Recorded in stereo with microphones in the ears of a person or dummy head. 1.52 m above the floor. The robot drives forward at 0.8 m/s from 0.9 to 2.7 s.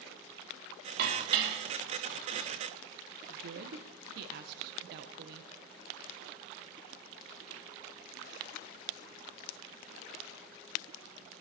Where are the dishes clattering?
55° right (ahead or behind), 2.5 m; by 2.5 s 75° right (ahead or behind), 2 m.